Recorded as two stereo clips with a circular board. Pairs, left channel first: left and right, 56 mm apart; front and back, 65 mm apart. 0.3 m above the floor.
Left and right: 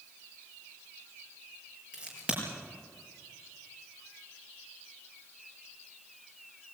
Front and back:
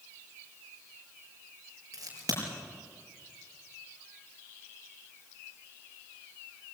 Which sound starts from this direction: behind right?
A crack, at 1.9 s.